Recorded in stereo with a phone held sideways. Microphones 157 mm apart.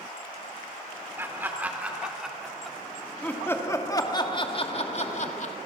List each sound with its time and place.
1.2 s laughter: 15° right (ahead or behind), 4 m; by 5.5 s 60° left (ahead or behind), 2.5 m